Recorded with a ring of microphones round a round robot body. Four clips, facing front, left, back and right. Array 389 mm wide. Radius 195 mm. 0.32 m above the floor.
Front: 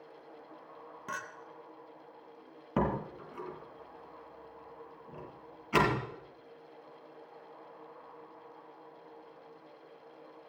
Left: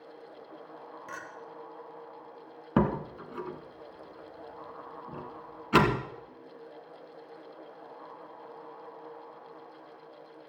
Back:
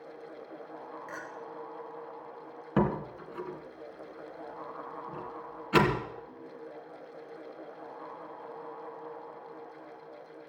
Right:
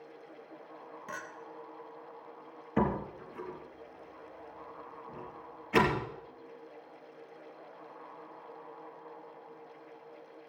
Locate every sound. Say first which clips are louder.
1.1 s a clink: right 1 dB, front 5 dB; straight ahead, 2.5 m
2.8 s a door slam: left 3 dB, back 3 dB; 95° left, 2.5 m